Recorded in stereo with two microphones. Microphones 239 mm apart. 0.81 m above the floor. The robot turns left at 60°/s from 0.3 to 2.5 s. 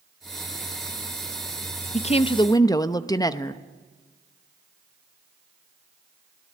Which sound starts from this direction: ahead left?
A woman speaking, at 1.9 s.